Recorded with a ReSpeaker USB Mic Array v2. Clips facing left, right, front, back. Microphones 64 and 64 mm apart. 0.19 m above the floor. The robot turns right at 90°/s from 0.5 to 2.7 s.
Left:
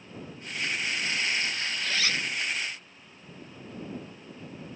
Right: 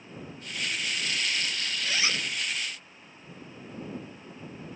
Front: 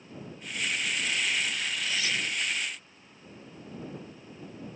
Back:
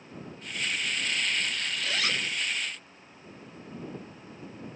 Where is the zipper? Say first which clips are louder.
Even, back 2 dB; 175° right; by 2.3 s 135° right.